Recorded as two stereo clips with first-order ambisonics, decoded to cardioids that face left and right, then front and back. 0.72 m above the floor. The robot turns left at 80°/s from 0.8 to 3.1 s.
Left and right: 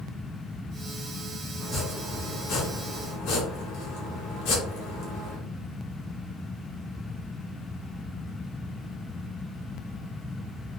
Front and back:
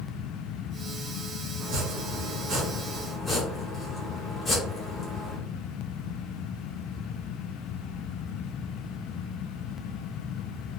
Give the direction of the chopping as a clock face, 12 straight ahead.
5 o'clock.